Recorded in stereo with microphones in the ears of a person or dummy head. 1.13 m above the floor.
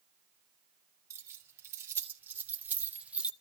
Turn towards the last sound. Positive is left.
turn(degrees=-5)  # may be behind; listen again after turning